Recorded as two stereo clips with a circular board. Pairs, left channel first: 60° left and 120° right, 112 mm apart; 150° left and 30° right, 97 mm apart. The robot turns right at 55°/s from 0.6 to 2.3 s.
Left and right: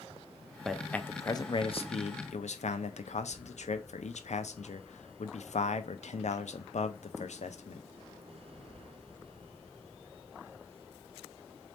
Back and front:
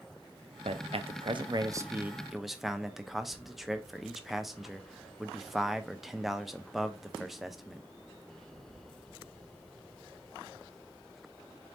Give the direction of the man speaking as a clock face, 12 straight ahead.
1 o'clock.